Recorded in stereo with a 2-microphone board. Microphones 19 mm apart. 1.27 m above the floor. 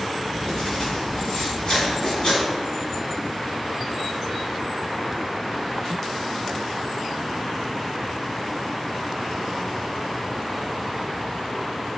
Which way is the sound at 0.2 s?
40° left (ahead or behind).